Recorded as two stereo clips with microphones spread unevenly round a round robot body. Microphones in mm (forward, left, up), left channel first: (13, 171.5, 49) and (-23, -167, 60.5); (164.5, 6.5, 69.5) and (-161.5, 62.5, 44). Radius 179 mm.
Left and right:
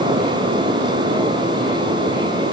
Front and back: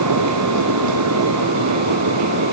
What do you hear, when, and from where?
Only background noise.